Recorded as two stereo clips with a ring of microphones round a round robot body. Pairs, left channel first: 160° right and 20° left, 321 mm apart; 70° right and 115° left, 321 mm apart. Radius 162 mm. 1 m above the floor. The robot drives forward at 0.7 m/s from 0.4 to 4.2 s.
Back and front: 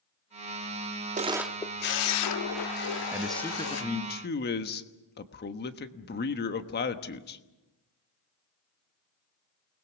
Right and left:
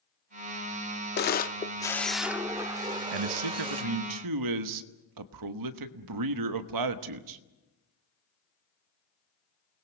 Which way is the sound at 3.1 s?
105° left.